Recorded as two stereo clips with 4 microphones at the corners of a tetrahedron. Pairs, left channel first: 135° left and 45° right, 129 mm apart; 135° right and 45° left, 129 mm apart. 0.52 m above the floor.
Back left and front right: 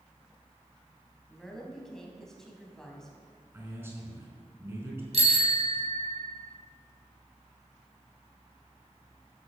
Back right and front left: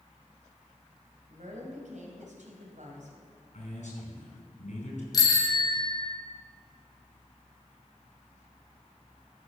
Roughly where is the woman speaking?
Ahead left.